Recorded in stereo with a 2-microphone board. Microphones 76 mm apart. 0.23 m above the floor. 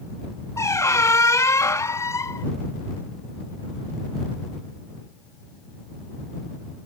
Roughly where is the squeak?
Left.